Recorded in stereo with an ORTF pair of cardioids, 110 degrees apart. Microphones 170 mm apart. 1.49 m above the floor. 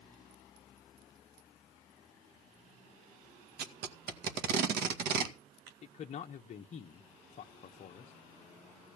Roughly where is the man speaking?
Ahead left.